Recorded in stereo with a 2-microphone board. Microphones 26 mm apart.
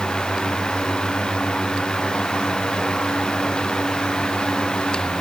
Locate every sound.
Only background noise.